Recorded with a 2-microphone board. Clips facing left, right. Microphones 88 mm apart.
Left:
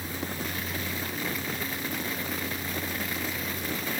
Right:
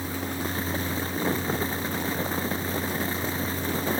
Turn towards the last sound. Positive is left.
No sound to turn to.